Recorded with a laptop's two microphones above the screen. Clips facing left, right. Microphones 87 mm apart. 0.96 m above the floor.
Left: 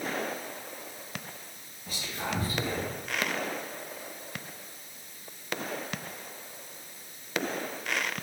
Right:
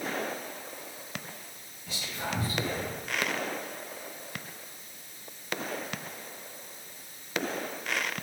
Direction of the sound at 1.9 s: 40° left (ahead or behind).